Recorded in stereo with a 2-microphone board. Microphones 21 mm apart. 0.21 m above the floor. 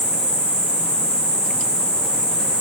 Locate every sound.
0.0 s an insect: 55° left (ahead or behind), 5 m